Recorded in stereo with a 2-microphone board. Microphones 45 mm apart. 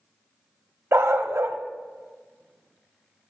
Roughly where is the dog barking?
Right.